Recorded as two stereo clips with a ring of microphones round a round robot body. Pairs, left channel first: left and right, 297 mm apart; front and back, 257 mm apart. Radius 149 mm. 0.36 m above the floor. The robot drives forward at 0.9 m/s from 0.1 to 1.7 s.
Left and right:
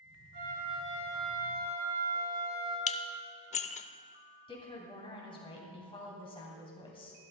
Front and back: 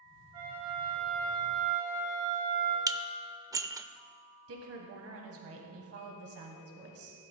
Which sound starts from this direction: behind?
A woman speaking, at 4.5 s.